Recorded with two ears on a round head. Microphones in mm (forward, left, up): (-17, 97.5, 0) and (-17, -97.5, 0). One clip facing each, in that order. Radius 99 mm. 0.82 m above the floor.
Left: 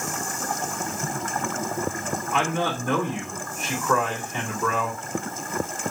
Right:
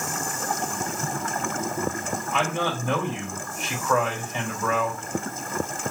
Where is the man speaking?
45° left (ahead or behind), 2 m.